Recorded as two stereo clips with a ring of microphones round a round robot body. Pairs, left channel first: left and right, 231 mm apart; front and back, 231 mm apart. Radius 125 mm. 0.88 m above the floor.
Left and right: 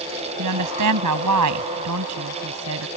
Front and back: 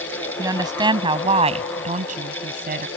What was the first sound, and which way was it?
A woman speaking, 105° right.